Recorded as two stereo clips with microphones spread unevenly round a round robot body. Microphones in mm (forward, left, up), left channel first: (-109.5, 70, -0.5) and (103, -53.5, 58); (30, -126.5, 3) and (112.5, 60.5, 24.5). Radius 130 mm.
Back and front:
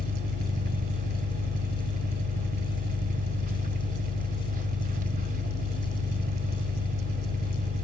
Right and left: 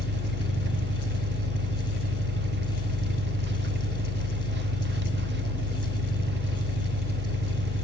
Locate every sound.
0.0 s an engine running: 30° left, 1.0 m